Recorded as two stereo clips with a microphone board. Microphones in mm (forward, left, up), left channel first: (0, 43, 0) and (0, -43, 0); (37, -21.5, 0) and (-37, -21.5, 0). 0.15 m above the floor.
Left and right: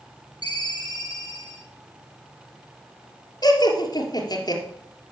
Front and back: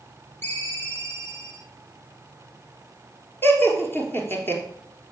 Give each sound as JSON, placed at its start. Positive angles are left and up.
{"t": 0.4, "sound": "a ringtone", "azimuth_deg": 55, "distance_m": 3.0}
{"t": 3.4, "sound": "laughter", "azimuth_deg": 60, "distance_m": 3.0}